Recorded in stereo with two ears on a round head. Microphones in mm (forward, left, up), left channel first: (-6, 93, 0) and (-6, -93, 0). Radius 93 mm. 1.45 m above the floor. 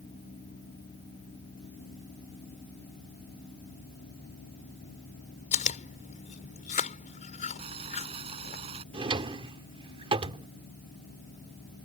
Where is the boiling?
30° right (ahead or behind).